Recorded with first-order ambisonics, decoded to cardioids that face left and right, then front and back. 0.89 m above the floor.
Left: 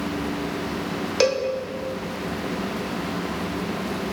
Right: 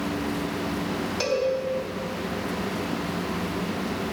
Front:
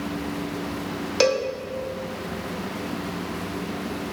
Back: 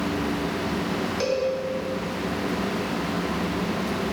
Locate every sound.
1.2 s a cowbell: 40° left, 1.0 m